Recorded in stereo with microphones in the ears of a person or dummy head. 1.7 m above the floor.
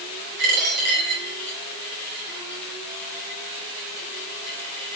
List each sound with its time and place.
0.4 s a dropped coin: 55° right (ahead or behind), 5 m